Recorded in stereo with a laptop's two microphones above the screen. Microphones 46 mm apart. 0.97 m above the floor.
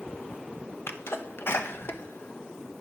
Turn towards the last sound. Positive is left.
turn(degrees=60)  # may be behind; listen again after turning